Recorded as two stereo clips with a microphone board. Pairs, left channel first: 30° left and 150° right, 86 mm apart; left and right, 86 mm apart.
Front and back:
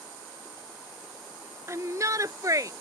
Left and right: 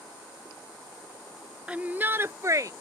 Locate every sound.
1.7 s a shout: 160° right; by 2.7 s 125° right